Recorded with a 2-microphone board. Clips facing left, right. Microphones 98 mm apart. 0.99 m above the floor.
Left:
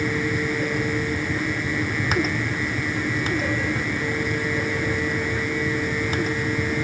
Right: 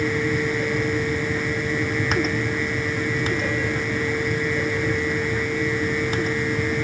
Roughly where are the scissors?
No scissors in this recording.